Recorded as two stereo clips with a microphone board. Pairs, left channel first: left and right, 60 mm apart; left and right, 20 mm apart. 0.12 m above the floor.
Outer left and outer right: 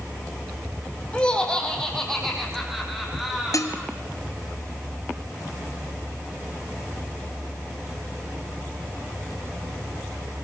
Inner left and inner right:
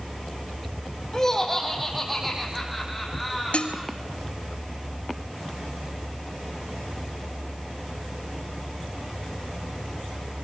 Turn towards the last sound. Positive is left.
turn(degrees=65)  # may be behind; listen again after turning